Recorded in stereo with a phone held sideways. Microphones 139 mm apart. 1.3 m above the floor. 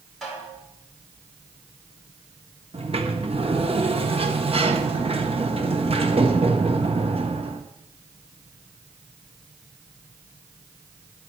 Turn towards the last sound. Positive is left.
turn(degrees=-50)  # may be behind; listen again after turning